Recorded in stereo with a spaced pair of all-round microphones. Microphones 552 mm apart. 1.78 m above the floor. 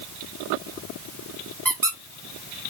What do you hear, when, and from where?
1.6 s a squeak: 35° right (ahead or behind), 0.8 m